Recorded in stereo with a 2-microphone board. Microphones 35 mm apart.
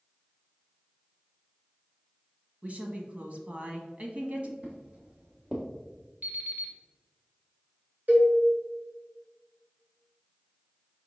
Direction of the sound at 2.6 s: 50° right (ahead or behind).